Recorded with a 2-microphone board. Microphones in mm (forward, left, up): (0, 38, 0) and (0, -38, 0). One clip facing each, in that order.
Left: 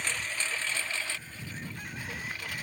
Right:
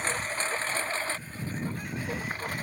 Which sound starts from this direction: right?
A lawn mower, at 0.0 s.